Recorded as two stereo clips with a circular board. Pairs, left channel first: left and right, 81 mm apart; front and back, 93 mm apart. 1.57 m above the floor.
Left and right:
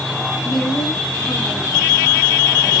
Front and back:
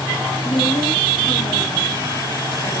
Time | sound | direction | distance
0.4 | a woman speaking | straight ahead | 9 m